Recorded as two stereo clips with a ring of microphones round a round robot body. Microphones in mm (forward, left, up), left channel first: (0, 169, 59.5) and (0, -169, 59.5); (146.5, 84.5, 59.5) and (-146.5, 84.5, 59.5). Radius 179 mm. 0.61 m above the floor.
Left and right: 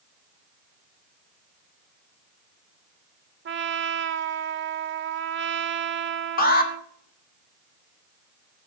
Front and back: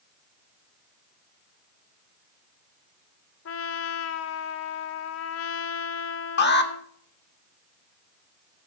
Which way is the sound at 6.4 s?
35° left.